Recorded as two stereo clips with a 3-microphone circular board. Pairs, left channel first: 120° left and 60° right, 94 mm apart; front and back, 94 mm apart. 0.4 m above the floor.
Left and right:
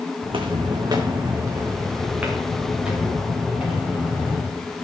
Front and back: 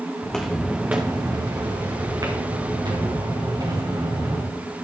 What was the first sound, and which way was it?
Footsteps, 80° right.